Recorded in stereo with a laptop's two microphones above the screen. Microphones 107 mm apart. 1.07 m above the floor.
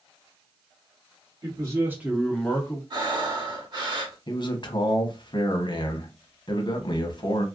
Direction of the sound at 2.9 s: 45° right (ahead or behind).